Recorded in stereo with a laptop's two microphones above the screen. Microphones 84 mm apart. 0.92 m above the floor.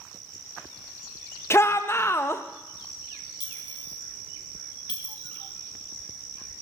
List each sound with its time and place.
1.5 s a shout: 30° left (ahead or behind), 0.7 m
3.4 s a clink: 55° left (ahead or behind), 1.4 m